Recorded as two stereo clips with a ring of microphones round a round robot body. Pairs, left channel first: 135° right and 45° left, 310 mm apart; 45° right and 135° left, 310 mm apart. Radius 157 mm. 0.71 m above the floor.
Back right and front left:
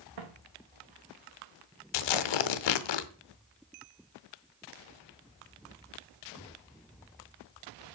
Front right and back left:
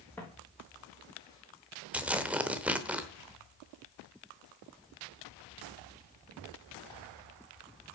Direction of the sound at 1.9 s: 140° right.